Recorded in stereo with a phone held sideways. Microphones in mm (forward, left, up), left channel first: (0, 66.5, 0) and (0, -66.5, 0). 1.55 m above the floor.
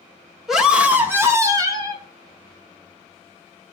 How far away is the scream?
About 3 m.